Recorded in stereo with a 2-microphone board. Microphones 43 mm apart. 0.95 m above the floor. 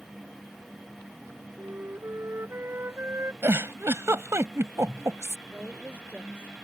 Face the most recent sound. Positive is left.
turn(degrees=-40)  # may be behind; listen again after turning